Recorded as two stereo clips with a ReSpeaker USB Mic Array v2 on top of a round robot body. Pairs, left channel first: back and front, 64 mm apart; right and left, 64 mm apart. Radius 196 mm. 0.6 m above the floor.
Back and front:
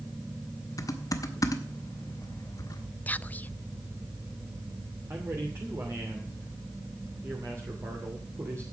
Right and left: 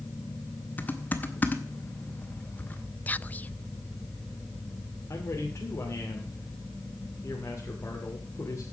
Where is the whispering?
135° right, 0.6 m.